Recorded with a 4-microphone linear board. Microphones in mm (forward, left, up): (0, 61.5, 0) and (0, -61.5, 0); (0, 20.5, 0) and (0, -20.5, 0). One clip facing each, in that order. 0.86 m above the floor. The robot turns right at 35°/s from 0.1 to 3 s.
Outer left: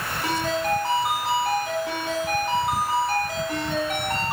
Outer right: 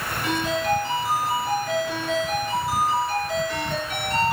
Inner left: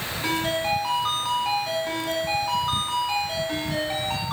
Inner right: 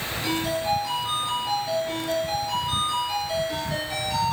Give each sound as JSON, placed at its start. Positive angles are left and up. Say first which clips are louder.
{"t": 0.2, "sound": "a ringtone", "louder": "outer right 1 dB, inner left 1 dB", "azimuth_deg": 35, "distance_m": 5.0}